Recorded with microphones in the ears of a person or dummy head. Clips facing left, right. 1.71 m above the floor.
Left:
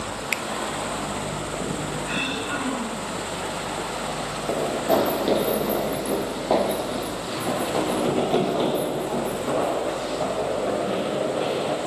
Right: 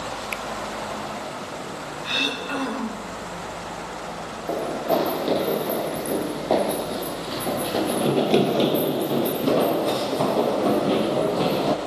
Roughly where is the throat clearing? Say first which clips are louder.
Left 1 dB; right.